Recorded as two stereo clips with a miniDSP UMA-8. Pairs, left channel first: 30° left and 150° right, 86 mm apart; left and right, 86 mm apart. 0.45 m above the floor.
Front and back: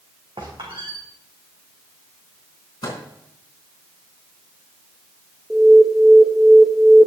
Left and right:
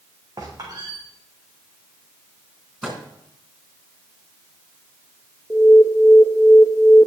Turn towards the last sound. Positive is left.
turn(degrees=125)